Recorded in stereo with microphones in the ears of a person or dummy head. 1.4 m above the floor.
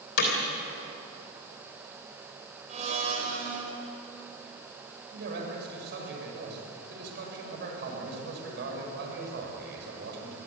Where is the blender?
35° right (ahead or behind), 5 m.